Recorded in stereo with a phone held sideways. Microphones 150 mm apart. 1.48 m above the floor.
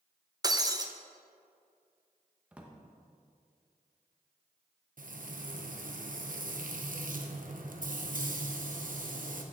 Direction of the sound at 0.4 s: 25° right (ahead or behind).